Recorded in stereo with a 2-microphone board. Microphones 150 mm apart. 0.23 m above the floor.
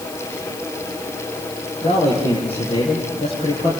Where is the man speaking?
40° left (ahead or behind), 8 m.